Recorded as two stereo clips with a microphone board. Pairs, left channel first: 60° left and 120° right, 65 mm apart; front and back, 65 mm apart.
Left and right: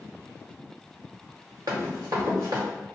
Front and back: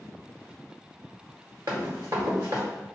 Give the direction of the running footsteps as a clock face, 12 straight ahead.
5 o'clock.